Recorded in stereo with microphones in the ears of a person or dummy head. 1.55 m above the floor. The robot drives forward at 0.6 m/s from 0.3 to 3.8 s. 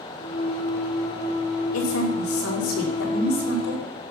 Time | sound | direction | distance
1.7 | a woman speaking | 85° left | 4.5 m